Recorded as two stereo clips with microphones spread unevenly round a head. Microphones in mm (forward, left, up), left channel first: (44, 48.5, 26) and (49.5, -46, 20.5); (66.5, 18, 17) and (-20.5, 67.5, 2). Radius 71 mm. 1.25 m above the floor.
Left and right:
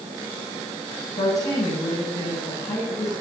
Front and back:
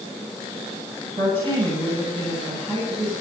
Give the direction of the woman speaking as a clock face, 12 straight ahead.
8 o'clock.